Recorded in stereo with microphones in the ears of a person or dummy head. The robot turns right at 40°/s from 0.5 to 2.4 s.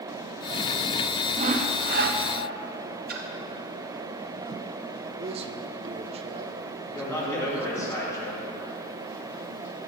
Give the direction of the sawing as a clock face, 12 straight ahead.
5 o'clock.